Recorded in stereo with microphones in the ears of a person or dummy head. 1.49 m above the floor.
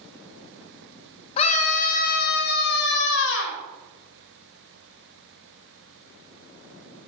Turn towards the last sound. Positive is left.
turn(degrees=75)  # may be behind; listen again after turning